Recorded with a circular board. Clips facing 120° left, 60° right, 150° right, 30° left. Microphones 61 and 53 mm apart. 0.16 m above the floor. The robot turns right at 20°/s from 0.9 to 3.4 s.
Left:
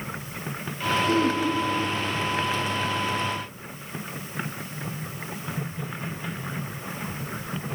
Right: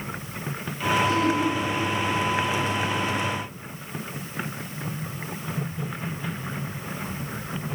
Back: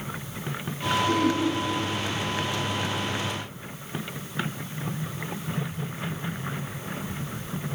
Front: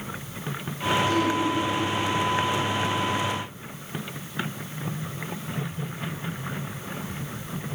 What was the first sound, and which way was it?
Throat clearing, 160° left.